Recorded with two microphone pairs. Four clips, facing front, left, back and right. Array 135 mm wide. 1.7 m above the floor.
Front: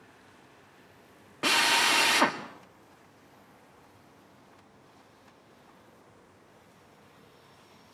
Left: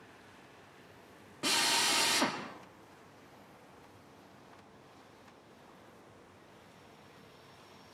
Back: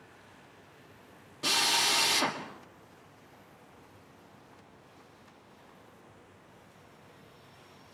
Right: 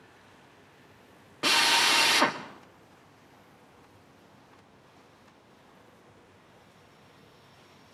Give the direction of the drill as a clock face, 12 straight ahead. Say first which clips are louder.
Right 7 dB, front 5 dB; 1 o'clock.